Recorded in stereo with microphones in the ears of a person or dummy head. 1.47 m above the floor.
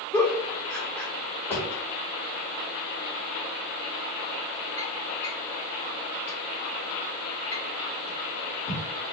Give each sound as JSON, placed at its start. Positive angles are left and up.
{"t": 0.1, "sound": "a giggle", "side_deg": 10, "distance_m": 0.7}
{"t": 1.5, "sound": "a drawer", "side_deg": 10, "distance_m": 1.0}